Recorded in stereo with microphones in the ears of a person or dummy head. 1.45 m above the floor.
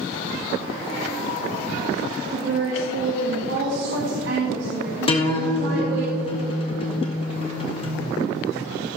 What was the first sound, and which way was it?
A woman speaking, 75° right (ahead or behind).